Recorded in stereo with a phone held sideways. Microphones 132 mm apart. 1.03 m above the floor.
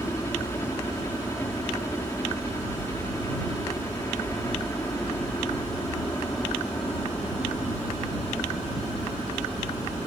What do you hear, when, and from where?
0.0 s a helicopter: 20° left (ahead or behind)